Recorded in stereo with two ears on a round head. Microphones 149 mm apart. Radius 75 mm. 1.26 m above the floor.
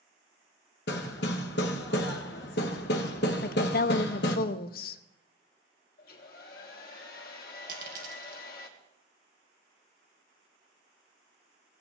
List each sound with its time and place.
0.9 s hammering: 75° left (ahead or behind), 1.0 m
3.4 s a woman speaking: 55° left (ahead or behind), 0.5 m
6.0 s a hair dryer: 55° left (ahead or behind), 1.4 m
7.7 s a dropped coin: 55° right (ahead or behind), 2 m